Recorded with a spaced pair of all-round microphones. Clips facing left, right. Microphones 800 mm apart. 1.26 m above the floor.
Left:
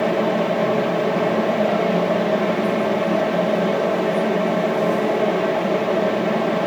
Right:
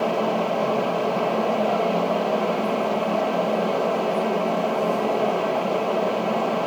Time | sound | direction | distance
0.0 | a fan | 55° left (ahead or behind) | 0.7 m